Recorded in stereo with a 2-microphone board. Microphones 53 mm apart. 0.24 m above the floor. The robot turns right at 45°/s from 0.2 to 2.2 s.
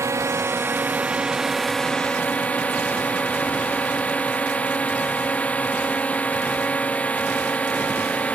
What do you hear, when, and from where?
0.0 s a drone: 60° right; by 8.4 s 30° left